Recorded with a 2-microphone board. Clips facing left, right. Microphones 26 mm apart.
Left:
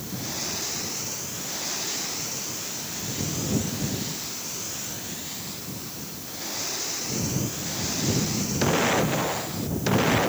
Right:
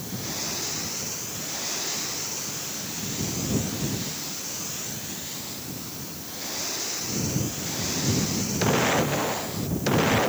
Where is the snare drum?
I don't hear a snare drum.